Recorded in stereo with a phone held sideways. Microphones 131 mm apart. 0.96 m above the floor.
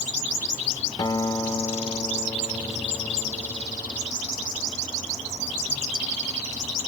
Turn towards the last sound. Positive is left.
turn(degrees=30)  # may be behind; listen again after turning